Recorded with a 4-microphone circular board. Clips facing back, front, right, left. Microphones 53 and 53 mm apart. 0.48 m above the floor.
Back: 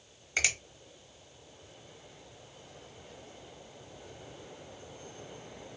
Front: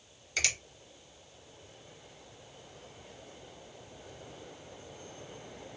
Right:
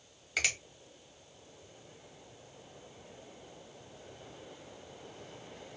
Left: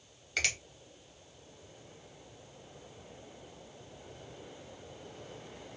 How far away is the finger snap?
About 1.0 m.